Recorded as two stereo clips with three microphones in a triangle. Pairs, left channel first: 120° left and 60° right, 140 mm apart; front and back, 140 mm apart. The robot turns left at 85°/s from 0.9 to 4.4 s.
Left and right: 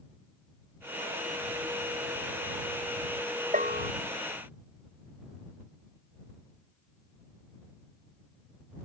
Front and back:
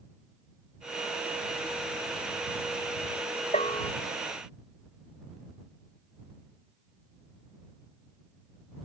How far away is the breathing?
No breathing in this recording.